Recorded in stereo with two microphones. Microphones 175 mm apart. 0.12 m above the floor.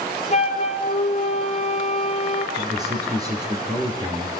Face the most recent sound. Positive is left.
turn(degrees=-20)  # may be behind; listen again after turning